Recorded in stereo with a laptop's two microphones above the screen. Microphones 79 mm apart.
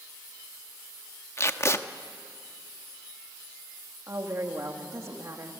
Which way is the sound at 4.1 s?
40° right (ahead or behind).